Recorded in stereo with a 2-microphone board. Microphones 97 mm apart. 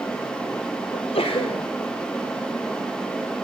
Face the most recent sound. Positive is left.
turn(degrees=75)  # may be behind; listen again after turning